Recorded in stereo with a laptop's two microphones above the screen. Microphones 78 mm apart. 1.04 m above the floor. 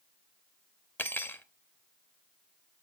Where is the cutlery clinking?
25° left (ahead or behind), 0.7 m.